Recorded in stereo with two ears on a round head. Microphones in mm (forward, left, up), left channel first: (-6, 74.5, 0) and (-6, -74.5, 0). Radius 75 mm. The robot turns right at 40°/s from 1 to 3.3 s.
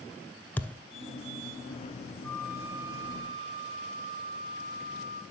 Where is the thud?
10° left (ahead or behind), 0.5 m.